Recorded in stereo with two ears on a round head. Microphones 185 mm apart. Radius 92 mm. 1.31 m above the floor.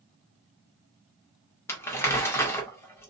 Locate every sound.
1.7 s crumpling: 10° left (ahead or behind), 1.7 m